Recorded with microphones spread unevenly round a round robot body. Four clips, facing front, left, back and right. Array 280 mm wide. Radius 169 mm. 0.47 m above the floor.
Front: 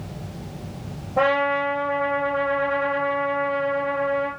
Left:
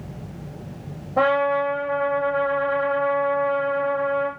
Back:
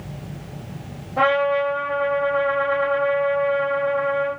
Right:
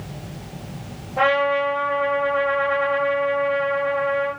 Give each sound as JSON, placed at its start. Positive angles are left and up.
{"t": 1.2, "sound": "a trumpet", "azimuth_deg": 70, "distance_m": 9.0}